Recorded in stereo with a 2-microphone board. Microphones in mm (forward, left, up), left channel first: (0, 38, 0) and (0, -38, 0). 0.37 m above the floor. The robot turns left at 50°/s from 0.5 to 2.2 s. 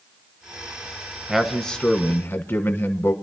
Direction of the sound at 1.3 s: 170° right.